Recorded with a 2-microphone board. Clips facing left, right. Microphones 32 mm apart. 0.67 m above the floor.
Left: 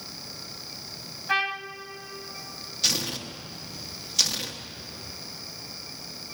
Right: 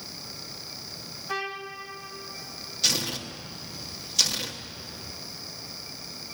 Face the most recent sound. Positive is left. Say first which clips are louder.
# even
turn(degrees=5)  # may be behind; listen again after turning